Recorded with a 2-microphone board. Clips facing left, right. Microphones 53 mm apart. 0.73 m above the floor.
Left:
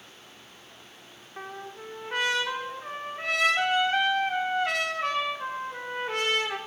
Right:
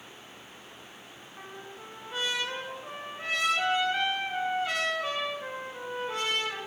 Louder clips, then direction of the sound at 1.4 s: Left 6 dB; 60° left (ahead or behind).